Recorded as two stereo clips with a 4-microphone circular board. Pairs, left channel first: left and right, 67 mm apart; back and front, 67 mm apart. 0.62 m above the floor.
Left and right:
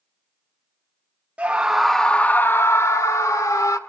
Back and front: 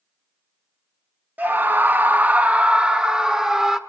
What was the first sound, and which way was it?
A scream, 40° right.